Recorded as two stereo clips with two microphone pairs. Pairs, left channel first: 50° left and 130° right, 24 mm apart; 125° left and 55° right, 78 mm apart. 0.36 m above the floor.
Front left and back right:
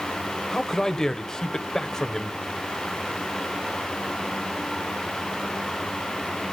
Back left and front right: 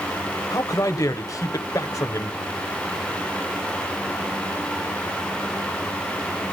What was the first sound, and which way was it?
A man speaking, 110° left.